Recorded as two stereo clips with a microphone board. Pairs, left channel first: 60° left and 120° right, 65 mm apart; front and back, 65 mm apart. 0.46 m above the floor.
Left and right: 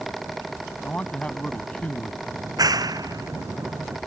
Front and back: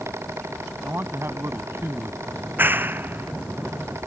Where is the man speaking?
130° left.